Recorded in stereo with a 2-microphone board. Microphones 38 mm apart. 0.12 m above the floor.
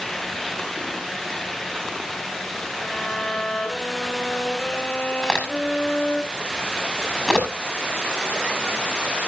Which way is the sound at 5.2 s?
5° left (ahead or behind).